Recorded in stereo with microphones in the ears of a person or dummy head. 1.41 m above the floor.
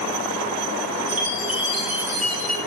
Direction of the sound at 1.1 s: 30° right (ahead or behind).